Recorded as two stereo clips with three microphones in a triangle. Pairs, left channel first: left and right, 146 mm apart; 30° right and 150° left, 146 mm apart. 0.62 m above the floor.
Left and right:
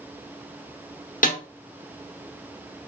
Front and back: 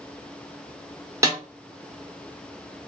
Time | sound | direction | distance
1.2 | a snare drum | 85° left | 0.8 m